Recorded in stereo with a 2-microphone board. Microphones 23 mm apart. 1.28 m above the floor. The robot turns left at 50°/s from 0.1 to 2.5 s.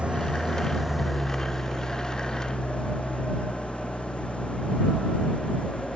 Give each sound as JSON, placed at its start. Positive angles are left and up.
{"t": 0.0, "sound": "an engine running", "azimuth_deg": -120}